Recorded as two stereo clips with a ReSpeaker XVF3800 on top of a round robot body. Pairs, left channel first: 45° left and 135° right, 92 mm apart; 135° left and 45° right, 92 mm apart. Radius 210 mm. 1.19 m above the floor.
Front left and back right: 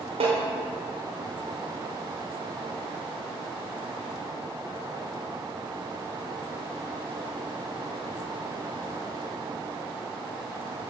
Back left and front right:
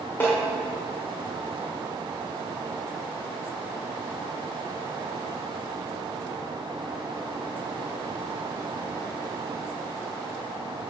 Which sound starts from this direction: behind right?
A snare drum, at 0.2 s.